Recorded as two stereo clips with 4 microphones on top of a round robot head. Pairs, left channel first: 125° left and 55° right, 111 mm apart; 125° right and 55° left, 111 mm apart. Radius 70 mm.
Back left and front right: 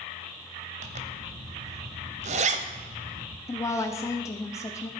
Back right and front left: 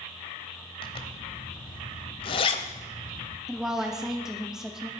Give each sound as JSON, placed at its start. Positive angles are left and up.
{"t": 0.8, "sound": "a zipper", "azimuth_deg": -80, "distance_m": 0.9}
{"t": 3.5, "sound": "a woman speaking", "azimuth_deg": 135, "distance_m": 0.7}